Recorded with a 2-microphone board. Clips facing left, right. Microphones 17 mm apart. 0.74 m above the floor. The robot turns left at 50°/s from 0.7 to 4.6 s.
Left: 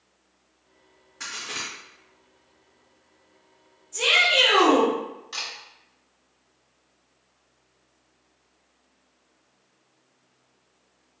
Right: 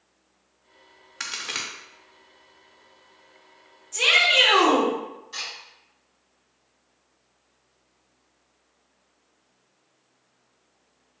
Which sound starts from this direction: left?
A camera shutter, at 5.3 s.